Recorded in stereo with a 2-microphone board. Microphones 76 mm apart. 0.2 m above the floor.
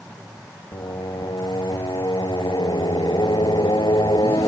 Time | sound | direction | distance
0.7 | singing | 85° left | ?